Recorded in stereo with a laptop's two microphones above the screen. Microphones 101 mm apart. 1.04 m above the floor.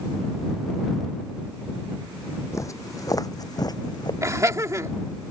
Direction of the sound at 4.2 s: 30° right (ahead or behind).